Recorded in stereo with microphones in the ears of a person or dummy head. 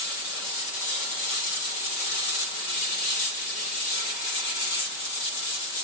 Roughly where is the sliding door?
I don't hear a sliding door.